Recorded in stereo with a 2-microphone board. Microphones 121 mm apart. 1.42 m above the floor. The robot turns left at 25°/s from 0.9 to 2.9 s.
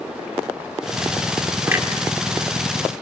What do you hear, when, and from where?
1.7 s a clunk: 15° right (ahead or behind), 2.5 m; by 1.9 s 20° right (ahead or behind), 2.5 m